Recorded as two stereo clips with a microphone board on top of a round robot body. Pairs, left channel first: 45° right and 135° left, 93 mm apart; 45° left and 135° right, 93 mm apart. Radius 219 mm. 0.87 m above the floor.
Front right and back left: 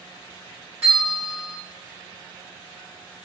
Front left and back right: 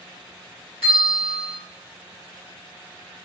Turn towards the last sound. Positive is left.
turn(degrees=60)